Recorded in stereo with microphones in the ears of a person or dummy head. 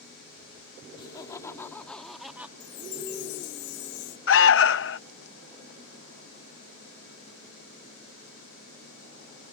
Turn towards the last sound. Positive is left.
turn(degrees=65)  # may be behind; listen again after turning